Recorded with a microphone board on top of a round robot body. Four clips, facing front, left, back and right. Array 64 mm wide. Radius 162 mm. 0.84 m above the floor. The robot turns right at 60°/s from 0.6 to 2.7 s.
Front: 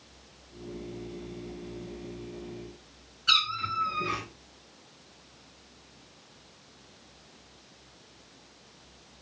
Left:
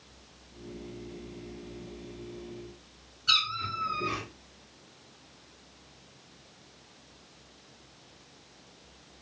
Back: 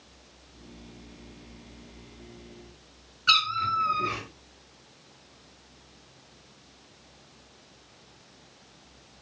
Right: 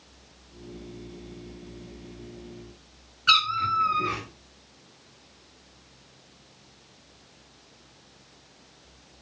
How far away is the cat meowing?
About 1.2 m.